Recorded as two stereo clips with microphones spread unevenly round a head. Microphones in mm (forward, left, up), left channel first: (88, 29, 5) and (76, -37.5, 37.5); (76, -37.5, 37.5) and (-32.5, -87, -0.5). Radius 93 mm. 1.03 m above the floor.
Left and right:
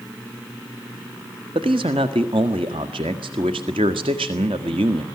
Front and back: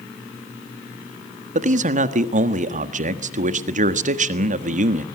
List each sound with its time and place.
1.6 s a man speaking: 150° right, 1.4 m